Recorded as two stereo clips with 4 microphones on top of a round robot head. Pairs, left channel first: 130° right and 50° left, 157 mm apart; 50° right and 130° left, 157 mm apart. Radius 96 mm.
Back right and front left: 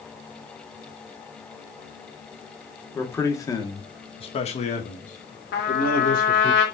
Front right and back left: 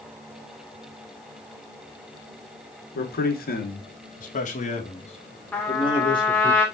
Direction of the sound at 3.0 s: 55° right.